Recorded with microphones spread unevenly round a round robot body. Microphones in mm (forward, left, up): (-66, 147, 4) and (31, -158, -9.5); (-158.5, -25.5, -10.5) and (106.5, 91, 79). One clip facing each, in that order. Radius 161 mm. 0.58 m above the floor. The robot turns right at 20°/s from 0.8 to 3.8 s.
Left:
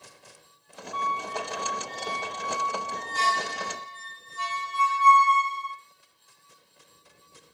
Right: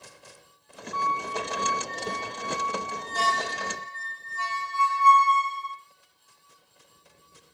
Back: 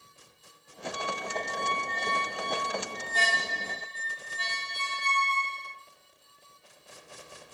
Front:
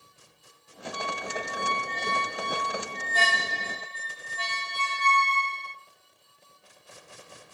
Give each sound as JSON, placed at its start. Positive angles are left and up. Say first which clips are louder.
{"t": 0.9, "sound": "a squeak", "louder": "right 2 dB, front 1 dB", "azimuth_deg": 0, "distance_m": 1.4}